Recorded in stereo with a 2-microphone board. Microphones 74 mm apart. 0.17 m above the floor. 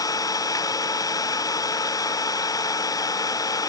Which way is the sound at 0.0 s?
55° left (ahead or behind).